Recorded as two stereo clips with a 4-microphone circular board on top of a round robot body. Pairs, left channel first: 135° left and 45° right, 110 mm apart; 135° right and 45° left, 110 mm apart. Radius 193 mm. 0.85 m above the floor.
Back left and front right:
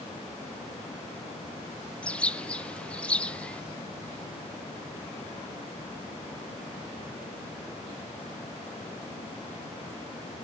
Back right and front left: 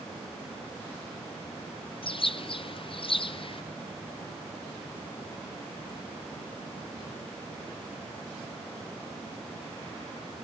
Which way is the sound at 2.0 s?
150° right.